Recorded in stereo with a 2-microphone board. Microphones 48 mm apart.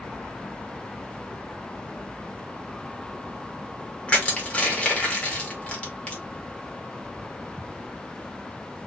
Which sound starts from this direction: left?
Crushing, at 4.1 s.